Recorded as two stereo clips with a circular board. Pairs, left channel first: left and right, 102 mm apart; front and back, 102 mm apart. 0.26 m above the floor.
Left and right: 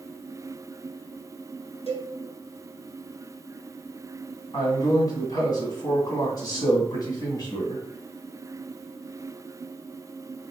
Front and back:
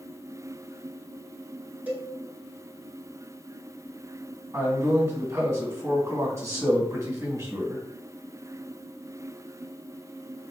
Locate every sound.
1.9 s a cowbell: 105° left, 1.4 m
4.5 s a man speaking: 125° left, 2 m